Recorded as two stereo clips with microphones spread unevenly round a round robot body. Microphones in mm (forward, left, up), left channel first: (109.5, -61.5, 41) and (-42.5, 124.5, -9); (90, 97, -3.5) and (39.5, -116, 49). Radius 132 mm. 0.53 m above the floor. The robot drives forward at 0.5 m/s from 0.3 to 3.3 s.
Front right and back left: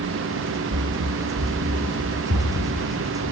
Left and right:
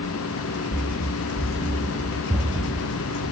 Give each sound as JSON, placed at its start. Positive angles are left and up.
{"t": 0.7, "sound": "running footsteps", "azimuth_deg": 150, "distance_m": 1.3}